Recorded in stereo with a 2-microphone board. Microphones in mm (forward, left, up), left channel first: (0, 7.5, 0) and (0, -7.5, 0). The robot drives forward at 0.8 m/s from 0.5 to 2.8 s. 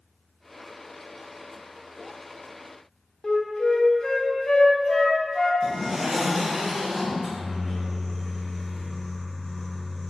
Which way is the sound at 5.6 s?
10° right (ahead or behind).